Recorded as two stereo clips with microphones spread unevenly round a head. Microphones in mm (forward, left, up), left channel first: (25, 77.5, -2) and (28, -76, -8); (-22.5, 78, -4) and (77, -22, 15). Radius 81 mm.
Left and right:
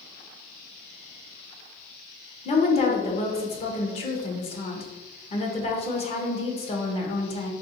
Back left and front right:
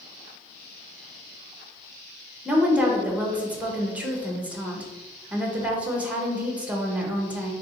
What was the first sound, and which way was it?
A woman speaking, 40° left.